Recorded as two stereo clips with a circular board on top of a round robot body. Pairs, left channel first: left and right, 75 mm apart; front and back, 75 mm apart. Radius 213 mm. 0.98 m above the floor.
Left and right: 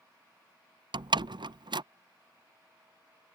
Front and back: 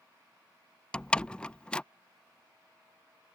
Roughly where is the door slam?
Right.